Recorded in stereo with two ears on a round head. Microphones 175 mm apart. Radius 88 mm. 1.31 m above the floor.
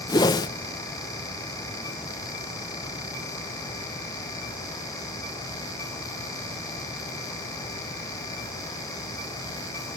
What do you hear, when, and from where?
0.1 s a whoosh: 20° left (ahead or behind), 0.5 m